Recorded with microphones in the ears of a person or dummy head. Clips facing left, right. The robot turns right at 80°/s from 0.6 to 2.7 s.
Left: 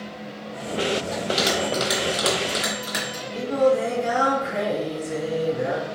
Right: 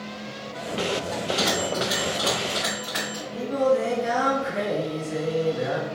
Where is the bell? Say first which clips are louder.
Left 2 dB; 5° left (ahead or behind), 1.4 m; by 3.2 s 45° left (ahead or behind), 1.4 m.